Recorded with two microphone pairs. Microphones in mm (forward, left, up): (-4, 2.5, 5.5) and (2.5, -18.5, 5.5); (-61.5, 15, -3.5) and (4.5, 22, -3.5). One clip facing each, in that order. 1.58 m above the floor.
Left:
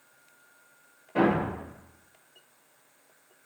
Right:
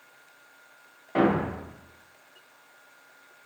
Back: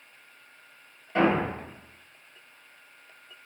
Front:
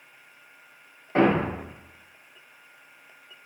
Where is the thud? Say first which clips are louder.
Right 1 dB, front 2 dB; 55° right, 2.0 m.